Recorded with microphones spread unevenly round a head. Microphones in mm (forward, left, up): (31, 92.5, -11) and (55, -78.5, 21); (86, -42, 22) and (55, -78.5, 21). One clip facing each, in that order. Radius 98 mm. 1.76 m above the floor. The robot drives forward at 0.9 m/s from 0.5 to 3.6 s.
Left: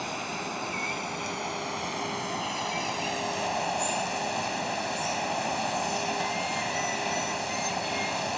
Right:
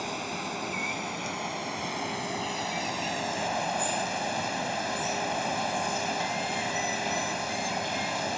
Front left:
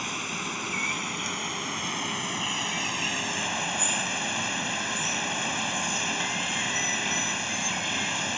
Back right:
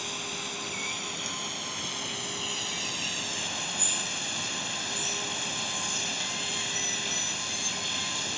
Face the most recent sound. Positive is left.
turn(degrees=0)